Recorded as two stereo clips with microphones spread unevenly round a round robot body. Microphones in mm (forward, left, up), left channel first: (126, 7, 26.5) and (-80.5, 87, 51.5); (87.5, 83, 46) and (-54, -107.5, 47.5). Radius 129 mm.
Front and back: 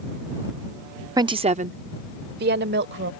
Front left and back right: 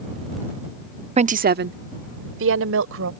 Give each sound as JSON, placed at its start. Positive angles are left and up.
{"t": 1.2, "sound": "a woman speaking", "azimuth_deg": -135}